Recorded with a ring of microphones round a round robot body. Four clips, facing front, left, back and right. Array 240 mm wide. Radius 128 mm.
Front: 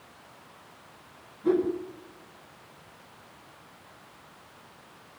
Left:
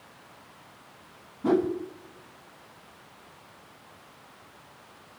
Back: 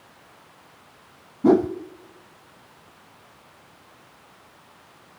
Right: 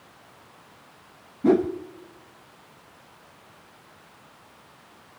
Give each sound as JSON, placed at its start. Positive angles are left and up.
{"t": 1.4, "sound": "a whoosh", "azimuth_deg": -160, "distance_m": 0.9}